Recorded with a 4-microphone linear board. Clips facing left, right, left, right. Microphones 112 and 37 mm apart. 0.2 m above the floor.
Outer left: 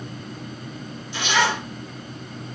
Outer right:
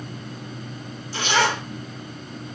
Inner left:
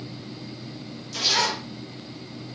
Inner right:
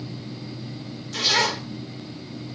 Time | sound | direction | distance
1.1 | a zipper | 40° right (ahead or behind) | 2.5 m